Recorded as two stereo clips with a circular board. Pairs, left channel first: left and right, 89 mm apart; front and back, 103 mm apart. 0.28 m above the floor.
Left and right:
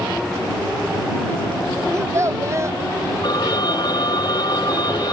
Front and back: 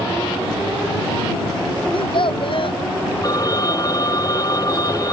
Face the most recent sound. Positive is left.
turn(degrees=50)